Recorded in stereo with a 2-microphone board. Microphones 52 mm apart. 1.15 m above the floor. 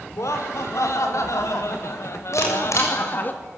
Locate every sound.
0.1 s laughter: 80° left, 5 m; by 3.3 s 35° left (ahead or behind), 2.5 m
2.3 s a camera shutter: 75° left (ahead or behind), 6.5 m